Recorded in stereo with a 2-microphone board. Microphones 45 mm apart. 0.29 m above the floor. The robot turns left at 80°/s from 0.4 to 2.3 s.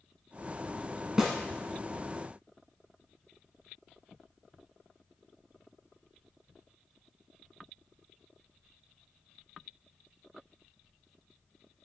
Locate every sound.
1.2 s a snare drum: 10° right (ahead or behind), 0.7 m; by 1.4 s 5° left (ahead or behind), 0.7 m